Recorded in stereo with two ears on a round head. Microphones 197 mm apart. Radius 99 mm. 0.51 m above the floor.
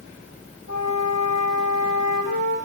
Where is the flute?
80° left, 4 m.